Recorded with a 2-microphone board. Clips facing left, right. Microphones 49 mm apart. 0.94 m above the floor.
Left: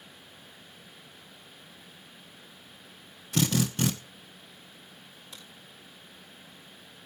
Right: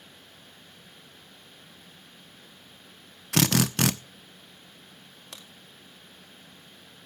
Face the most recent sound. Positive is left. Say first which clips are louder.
# right 3 dB
turn(degrees=-70)  # may be behind; listen again after turning